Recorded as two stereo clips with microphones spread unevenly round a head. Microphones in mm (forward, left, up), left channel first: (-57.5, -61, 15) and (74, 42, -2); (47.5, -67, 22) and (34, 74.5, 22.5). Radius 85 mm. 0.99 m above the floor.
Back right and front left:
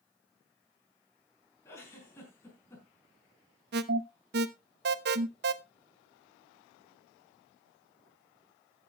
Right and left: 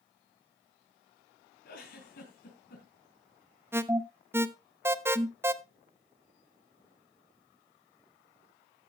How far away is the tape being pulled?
I don't hear tape being pulled.